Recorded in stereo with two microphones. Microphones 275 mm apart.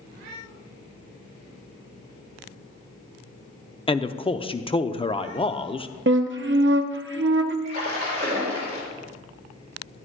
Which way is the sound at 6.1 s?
45° right (ahead or behind).